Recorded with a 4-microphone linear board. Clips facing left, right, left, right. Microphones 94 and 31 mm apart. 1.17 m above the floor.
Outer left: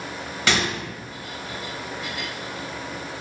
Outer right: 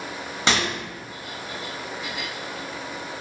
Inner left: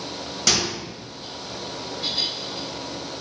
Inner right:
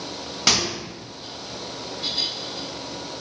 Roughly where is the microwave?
Right.